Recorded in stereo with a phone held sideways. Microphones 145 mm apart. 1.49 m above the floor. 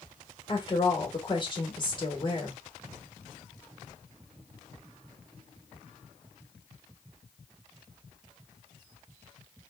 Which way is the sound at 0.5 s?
35° left (ahead or behind).